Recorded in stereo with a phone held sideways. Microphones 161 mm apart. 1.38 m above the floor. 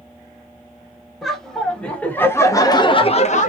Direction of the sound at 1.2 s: Centre (ahead or behind).